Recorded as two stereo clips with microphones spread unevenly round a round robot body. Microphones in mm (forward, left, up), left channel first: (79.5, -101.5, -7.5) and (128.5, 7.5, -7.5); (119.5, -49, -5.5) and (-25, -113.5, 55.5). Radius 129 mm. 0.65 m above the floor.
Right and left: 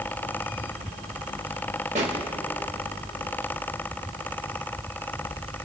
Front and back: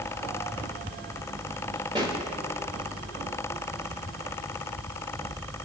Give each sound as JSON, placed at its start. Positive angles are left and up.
{"t": 1.9, "sound": "a pop", "azimuth_deg": 130, "distance_m": 1.0}